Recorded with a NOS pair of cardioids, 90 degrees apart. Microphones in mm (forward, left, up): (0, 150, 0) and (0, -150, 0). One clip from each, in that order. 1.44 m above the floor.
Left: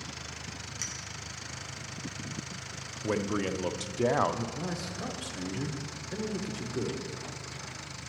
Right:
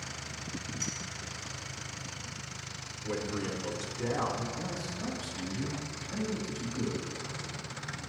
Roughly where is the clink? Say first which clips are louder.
Even; left.